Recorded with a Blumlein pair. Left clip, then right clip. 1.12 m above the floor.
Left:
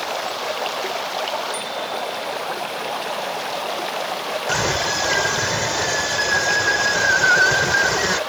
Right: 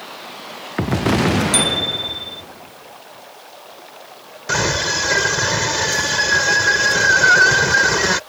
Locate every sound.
0.0 s running water: 35° left
1.5 s a bicycle bell: 55° right
4.5 s a scream: 10° right